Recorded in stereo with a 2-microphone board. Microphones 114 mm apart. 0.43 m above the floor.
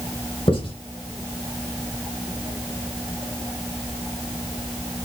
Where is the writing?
50° left (ahead or behind), 2 m.